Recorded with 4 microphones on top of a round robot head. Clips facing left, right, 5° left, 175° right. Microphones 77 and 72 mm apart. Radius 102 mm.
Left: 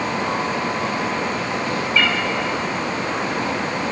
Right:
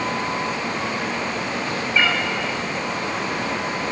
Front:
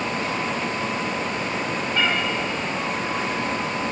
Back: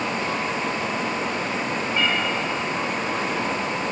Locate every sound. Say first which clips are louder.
1.9 s a cat meowing: even, front 1 dB; 20° right, 2 m